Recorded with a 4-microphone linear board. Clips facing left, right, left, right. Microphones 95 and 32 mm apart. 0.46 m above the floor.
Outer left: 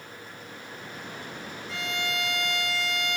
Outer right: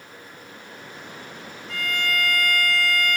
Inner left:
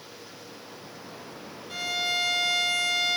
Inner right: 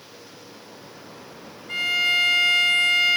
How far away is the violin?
About 3.5 m.